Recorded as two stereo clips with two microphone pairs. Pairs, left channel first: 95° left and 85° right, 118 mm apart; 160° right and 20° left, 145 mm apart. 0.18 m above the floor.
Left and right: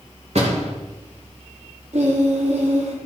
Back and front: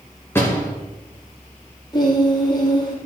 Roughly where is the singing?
Right.